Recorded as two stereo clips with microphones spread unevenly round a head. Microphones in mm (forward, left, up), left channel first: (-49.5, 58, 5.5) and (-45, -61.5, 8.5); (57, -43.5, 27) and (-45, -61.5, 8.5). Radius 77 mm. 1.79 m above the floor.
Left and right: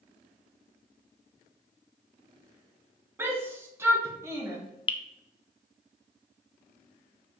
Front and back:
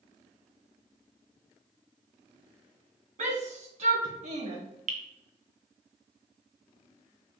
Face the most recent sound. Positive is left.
turn(degrees=140)